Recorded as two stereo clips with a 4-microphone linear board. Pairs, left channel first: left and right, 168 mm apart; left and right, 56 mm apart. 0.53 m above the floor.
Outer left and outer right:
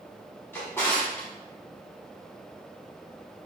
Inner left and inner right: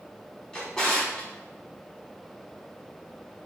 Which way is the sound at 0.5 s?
15° left (ahead or behind).